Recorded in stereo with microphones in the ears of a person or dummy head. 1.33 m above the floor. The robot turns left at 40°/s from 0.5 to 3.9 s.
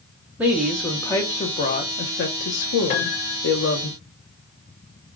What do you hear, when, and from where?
0.4 s a woman speaking: 170° right, 0.8 m; by 3.9 s 50° left, 0.8 m
2.9 s a piano: 45° left (ahead or behind), 0.7 m; by 3.4 s 25° left (ahead or behind), 0.7 m